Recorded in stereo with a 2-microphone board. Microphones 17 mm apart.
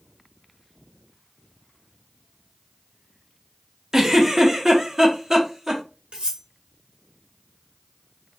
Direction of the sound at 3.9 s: 30° right (ahead or behind).